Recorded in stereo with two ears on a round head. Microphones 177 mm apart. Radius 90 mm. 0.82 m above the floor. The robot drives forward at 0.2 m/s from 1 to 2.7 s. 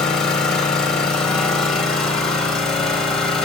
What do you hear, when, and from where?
0.0 s an engine running: 5° left (ahead or behind), 3 m